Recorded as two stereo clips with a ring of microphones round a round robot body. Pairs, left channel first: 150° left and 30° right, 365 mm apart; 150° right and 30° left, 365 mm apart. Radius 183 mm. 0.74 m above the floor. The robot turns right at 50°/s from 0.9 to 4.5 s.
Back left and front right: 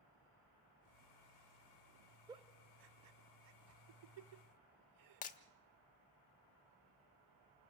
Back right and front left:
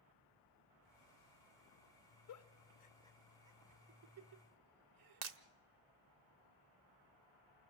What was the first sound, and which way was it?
A giggle, 110° right.